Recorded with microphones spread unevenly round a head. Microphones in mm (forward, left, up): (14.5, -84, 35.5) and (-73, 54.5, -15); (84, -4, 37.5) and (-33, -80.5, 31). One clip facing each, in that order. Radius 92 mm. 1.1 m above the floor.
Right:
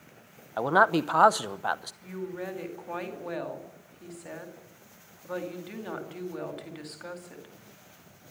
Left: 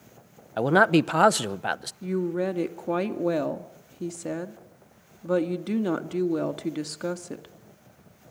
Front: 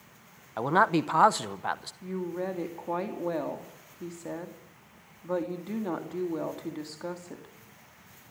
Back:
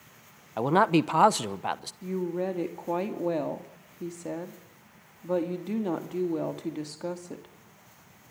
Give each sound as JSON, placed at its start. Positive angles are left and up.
{"t": 0.6, "sound": "a man speaking", "azimuth_deg": 145, "distance_m": 0.8}
{"t": 2.0, "sound": "a woman speaking", "azimuth_deg": 140, "distance_m": 2.0}